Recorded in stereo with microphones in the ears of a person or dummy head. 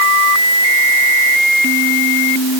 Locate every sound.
Only background noise.